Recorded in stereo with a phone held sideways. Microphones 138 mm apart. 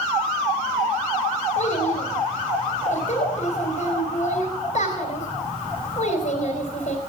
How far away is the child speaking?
About 3 m.